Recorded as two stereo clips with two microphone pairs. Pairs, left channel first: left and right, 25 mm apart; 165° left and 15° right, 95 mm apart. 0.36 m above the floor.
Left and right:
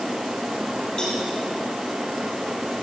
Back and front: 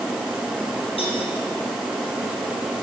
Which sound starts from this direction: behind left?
A cowbell, at 1.0 s.